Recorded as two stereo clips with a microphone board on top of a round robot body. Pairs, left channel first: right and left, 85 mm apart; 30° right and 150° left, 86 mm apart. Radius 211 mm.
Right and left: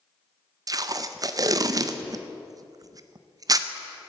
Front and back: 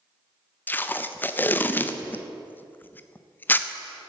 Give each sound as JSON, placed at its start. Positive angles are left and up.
{"t": 0.7, "sound": "tape being pulled", "azimuth_deg": 40, "distance_m": 0.6}